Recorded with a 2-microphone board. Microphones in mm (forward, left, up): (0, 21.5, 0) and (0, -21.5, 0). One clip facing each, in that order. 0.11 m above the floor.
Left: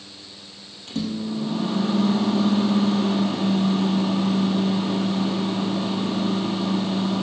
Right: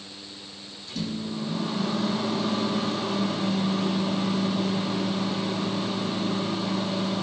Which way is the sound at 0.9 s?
65° left (ahead or behind).